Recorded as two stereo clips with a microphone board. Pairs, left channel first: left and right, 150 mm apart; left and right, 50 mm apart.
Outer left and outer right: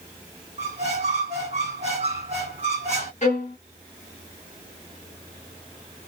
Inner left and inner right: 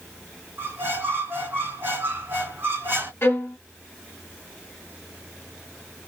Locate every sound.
0.6 s a squeak: 45° right (ahead or behind), 1.7 m
3.2 s a violin: 50° left (ahead or behind), 1.0 m